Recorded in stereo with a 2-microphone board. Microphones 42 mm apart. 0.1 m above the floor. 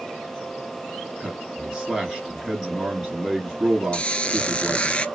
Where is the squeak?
25° left (ahead or behind), 0.6 m.